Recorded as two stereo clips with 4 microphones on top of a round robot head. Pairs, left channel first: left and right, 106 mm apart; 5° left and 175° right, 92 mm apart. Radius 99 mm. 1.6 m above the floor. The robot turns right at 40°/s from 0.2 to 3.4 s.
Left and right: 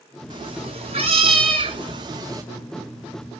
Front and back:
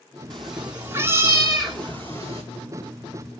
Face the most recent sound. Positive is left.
turn(degrees=-15)